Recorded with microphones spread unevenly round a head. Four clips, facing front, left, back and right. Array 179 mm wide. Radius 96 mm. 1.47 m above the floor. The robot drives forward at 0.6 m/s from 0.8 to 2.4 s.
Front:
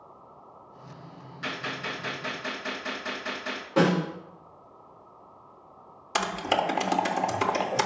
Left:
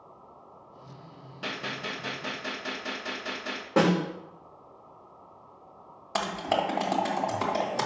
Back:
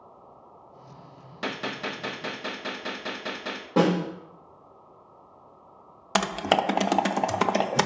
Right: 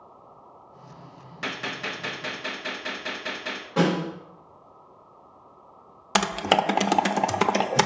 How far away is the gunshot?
About 0.7 m.